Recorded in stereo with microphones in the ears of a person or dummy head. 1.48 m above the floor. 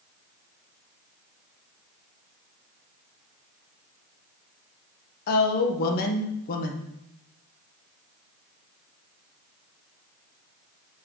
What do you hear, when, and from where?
5.3 s a woman speaking: 55° left (ahead or behind), 1.2 m